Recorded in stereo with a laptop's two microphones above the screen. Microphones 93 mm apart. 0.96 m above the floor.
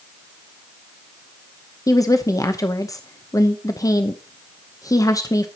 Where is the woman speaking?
35° left (ahead or behind), 0.8 m.